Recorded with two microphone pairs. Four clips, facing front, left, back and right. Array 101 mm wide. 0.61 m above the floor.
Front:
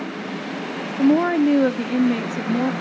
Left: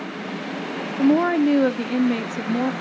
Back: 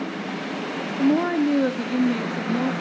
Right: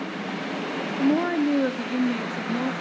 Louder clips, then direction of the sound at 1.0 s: Left 5 dB, front 4 dB; 25° left.